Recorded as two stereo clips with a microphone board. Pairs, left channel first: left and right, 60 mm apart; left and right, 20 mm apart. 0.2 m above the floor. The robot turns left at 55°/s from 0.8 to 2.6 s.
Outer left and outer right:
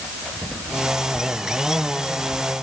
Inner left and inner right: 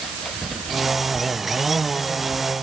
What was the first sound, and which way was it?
Only background noise.